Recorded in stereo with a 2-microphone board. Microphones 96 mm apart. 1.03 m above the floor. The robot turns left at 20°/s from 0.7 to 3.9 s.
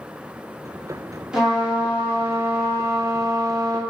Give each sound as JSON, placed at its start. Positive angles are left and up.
{"t": 1.3, "sound": "a trumpet", "azimuth_deg": -10, "distance_m": 0.9}